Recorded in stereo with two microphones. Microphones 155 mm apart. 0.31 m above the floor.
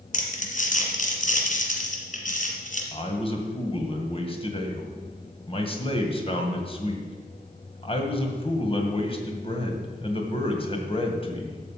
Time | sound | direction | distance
0.1 | crumpling | 50° left (ahead or behind) | 1.9 m
2.9 | a man speaking | 35° left (ahead or behind) | 1.9 m